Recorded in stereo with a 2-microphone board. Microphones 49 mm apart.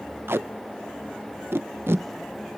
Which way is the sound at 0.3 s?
55° right (ahead or behind).